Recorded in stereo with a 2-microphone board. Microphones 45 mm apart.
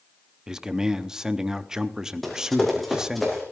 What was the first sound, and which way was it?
A man speaking, 15° right (ahead or behind).